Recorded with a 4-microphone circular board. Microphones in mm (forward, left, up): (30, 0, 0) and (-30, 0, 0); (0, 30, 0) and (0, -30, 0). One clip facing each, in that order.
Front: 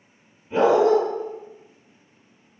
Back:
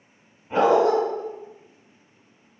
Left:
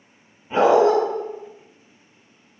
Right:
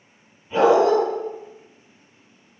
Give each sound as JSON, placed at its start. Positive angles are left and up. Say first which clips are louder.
{"t": 0.5, "sound": "a dog barking", "louder": "front 1 dB, even", "azimuth_deg": 145, "distance_m": 2.0}